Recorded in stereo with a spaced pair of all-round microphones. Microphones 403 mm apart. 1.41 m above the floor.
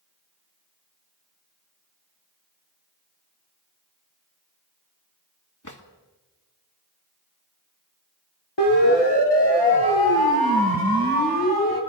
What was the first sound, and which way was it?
A drawer, 45° left (ahead or behind).